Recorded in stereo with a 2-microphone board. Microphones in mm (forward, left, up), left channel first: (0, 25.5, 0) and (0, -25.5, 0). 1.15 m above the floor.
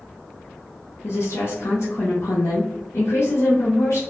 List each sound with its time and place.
1.0 s a woman speaking: 65° left (ahead or behind), 0.6 m